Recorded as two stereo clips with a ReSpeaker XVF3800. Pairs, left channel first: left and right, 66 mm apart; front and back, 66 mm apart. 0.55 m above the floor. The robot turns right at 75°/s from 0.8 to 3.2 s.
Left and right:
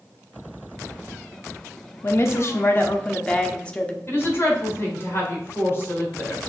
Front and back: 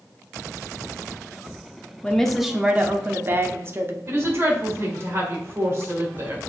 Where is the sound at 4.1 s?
140° left, 2.0 m.